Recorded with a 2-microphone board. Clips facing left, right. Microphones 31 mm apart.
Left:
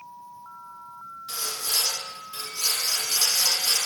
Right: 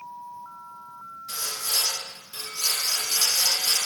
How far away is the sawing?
About 1.9 m.